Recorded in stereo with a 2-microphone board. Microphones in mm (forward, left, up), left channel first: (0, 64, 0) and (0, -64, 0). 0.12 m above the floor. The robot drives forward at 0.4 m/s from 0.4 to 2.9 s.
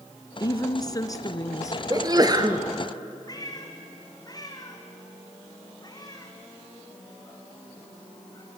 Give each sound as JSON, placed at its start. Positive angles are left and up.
{"t": 0.4, "sound": "a woman speaking", "side_deg": 30, "distance_m": 1.2}
{"t": 1.9, "sound": "a sneeze", "side_deg": -30, "distance_m": 1.9}
{"t": 3.3, "sound": "a cat meowing", "side_deg": 30, "distance_m": 3.0}